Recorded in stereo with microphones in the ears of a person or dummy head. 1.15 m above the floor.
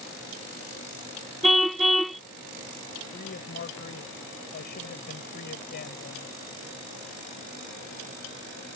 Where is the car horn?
Centre (ahead or behind).